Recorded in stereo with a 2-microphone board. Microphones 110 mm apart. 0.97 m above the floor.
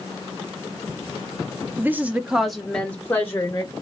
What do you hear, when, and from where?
1.8 s a woman speaking: 20° right (ahead or behind), 0.8 m; by 3.7 s 30° left (ahead or behind), 1.0 m